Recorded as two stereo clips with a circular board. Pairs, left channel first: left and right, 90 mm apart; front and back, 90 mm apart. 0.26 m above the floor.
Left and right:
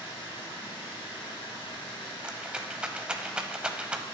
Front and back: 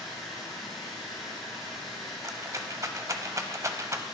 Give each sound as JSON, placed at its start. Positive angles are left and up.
{"t": 0.0, "sound": "running water", "azimuth_deg": 90, "distance_m": 3.0}
{"t": 2.2, "sound": "a rattle", "azimuth_deg": -160, "distance_m": 0.6}